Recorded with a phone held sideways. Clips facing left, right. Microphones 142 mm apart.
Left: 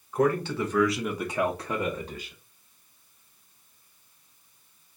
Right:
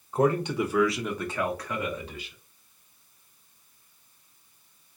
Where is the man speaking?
30° right (ahead or behind), 1.1 m; by 2.4 s 45° left (ahead or behind), 1.3 m.